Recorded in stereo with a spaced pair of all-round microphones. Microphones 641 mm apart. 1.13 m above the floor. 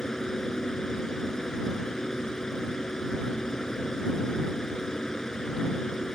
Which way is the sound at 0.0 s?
Centre (ahead or behind).